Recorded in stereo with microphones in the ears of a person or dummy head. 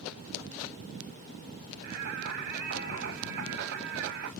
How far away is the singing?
About 1.2 m.